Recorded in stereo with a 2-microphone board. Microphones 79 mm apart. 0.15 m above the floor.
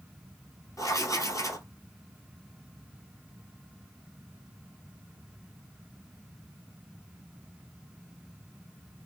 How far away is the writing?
About 1.2 m.